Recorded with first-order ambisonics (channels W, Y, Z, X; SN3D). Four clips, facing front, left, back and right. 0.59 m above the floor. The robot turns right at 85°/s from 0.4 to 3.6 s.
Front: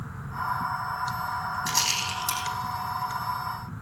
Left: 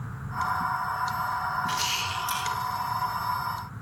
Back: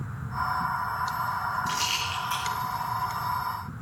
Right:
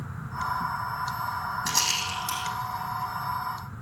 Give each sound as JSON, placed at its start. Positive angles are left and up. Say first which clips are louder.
{"t": 1.7, "sound": "a rattle", "louder": "right 1 dB, front 1 dB", "azimuth_deg": -60, "distance_m": 5.0}